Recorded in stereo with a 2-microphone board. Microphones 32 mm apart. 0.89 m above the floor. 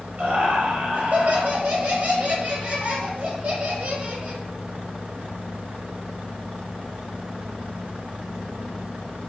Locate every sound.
0.2 s laughter: 45° right (ahead or behind), 0.8 m